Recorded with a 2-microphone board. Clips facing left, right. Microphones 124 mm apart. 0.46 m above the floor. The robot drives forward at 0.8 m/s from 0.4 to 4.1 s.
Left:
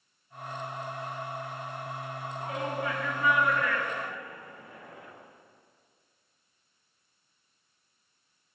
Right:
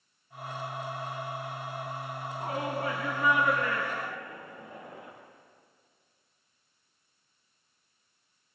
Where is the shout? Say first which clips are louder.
Right 1 dB; 40° right (ahead or behind), 4 m; by 5.1 s 30° right (ahead or behind), 5.5 m.